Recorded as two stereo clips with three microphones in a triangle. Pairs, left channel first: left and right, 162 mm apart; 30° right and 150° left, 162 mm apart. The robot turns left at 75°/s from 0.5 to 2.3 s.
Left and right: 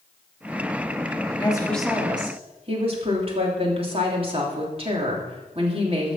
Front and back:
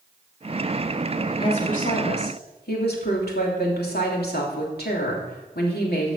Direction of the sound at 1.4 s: 30° left.